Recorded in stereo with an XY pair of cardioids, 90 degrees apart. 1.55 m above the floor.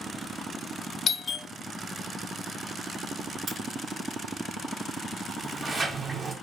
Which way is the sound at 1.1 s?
45° left.